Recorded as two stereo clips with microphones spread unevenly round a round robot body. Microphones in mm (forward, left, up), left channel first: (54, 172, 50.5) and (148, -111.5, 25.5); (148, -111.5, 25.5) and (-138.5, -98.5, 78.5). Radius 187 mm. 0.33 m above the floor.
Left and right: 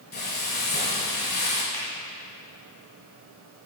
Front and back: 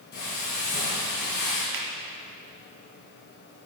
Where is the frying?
50° left, 3 m.